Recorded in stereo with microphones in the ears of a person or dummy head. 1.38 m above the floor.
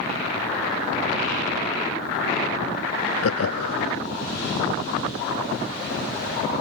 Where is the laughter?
80° left, 0.9 m.